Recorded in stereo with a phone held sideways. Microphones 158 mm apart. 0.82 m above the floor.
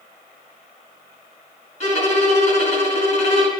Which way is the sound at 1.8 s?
50° left (ahead or behind).